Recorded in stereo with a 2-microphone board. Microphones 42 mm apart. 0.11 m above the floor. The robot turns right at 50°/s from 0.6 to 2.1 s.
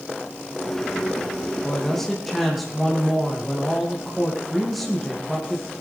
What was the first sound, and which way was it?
A man speaking, 20° left (ahead or behind).